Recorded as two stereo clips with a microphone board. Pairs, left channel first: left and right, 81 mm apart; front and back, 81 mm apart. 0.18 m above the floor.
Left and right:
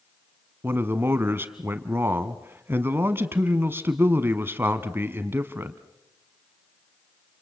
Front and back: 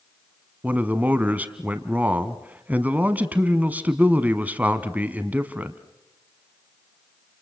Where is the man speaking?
125° right, 1.2 m.